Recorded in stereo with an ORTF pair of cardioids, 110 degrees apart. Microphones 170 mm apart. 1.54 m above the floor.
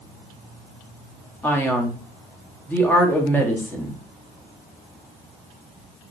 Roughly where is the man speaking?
Ahead.